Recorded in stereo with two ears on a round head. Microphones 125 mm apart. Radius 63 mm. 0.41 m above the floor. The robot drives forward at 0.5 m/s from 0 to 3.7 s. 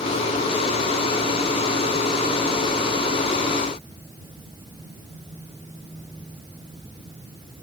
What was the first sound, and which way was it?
Only background noise.